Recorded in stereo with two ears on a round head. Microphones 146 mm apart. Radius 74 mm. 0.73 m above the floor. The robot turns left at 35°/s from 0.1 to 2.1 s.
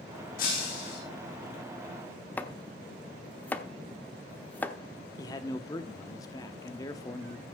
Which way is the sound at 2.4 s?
10° left (ahead or behind).